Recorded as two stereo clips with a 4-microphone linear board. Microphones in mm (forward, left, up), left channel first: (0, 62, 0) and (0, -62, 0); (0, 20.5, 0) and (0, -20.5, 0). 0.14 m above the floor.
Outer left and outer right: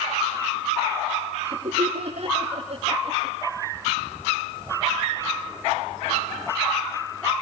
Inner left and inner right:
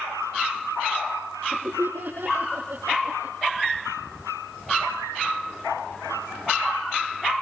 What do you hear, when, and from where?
1.4 s laughter: 60° right (ahead or behind), 7.5 m; by 3.4 s 50° right (ahead or behind), 6 m